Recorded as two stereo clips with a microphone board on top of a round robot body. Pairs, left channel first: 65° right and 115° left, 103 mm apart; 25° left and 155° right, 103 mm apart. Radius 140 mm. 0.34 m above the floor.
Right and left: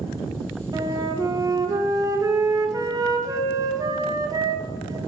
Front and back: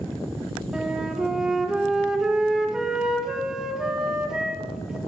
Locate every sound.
0.7 s a flute: 125° left, 1.7 m